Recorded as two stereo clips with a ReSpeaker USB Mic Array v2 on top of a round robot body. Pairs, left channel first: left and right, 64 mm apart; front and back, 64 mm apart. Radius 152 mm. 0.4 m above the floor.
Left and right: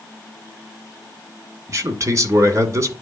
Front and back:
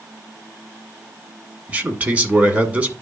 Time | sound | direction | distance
1.7 | a man speaking | 120° right | 2 m